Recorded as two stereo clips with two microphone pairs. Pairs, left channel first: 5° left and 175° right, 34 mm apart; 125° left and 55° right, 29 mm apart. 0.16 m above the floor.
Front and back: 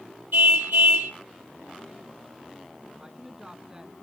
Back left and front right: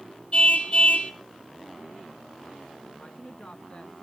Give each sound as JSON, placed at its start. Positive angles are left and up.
{"t": 0.3, "sound": "a car horn", "azimuth_deg": 170, "distance_m": 3.0}
{"t": 3.0, "sound": "a woman speaking", "azimuth_deg": 130, "distance_m": 1.7}